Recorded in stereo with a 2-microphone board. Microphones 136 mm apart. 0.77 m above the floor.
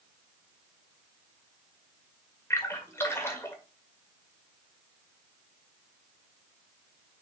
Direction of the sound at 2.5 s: 20° left (ahead or behind).